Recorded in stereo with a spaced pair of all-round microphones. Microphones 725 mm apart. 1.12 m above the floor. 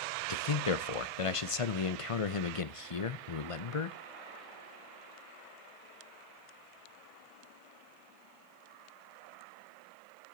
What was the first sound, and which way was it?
A man speaking, 50° left (ahead or behind).